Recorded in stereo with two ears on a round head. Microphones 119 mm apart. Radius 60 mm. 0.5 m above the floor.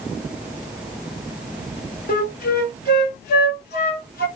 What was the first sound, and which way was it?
A flute, 75° left (ahead or behind).